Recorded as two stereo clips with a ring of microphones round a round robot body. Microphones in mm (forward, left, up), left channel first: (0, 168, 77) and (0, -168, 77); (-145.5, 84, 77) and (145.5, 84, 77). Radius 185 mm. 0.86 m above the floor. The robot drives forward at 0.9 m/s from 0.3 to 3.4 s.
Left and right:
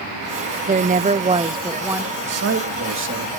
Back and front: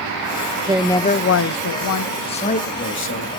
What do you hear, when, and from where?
0.7 s a woman speaking: 50° right, 0.5 m; by 2.1 s 170° right, 1.3 m
2.2 s a man speaking: 110° right, 1.4 m; by 3.3 s 145° right, 1.9 m